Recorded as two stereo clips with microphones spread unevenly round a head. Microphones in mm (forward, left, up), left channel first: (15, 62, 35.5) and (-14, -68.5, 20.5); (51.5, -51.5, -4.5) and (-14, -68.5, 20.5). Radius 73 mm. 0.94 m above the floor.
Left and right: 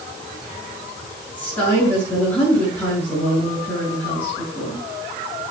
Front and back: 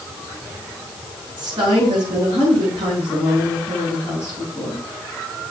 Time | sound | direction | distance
1.4 | a woman speaking | 155° left | 7 m